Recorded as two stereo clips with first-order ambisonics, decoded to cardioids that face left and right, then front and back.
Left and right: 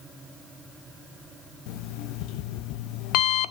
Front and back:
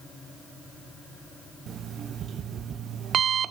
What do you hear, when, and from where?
1.7 s an alarm clock: 120° left, 0.5 m